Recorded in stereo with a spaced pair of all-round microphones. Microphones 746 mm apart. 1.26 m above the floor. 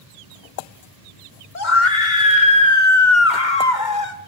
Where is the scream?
75° left (ahead or behind), 2.5 m.